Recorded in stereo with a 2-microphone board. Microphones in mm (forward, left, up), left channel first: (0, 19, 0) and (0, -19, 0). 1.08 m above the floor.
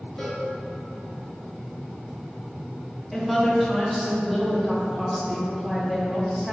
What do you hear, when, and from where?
0.2 s a cowbell: 30° left (ahead or behind), 1.2 m
3.1 s a woman speaking: centre (ahead or behind), 0.6 m